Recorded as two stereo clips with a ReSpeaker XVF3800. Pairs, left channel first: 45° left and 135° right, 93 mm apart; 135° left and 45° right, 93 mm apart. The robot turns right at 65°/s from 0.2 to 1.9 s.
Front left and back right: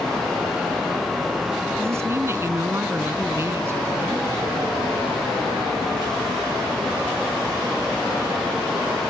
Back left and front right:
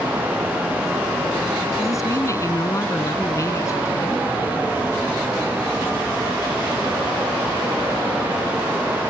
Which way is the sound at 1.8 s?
165° left.